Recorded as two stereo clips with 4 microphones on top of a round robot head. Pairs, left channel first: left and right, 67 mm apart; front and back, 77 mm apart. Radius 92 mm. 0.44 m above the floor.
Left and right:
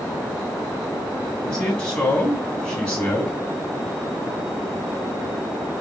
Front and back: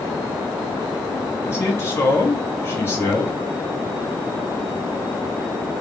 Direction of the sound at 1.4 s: 25° left.